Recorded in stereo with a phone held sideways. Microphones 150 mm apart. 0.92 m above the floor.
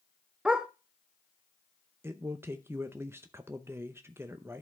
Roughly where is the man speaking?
Centre.